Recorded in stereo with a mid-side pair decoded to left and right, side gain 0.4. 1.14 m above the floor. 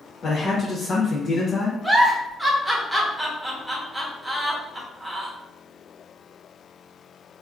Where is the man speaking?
55° left, 0.9 m.